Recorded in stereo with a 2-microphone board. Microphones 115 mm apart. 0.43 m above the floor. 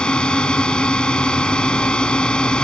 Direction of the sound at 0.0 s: 10° left (ahead or behind).